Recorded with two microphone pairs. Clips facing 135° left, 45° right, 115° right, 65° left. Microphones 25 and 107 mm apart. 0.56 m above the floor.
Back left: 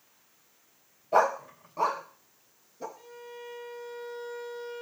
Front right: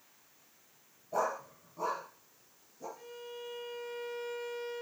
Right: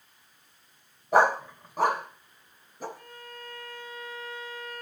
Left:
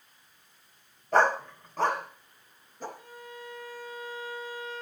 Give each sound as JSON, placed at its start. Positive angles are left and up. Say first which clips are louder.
{"t": 1.1, "sound": "a dog barking", "louder": "back left 9 dB, right 2 dB", "azimuth_deg": 170, "distance_m": 0.8}
{"t": 3.0, "sound": "a violin", "louder": "back left 1 dB, left 1 dB", "azimuth_deg": -135, "distance_m": 6.5}